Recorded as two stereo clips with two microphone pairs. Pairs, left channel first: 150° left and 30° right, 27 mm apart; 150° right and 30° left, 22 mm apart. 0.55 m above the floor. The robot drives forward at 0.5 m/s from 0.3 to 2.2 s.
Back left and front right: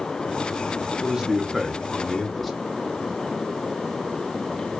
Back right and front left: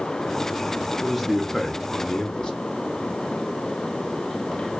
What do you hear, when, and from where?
1.0 s a man speaking: 70° right, 0.8 m; by 2.5 s 135° right, 0.9 m